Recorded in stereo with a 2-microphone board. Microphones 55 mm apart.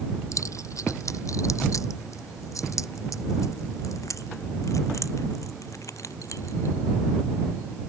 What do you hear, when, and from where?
0.3 s keys jangling: 75° left (ahead or behind)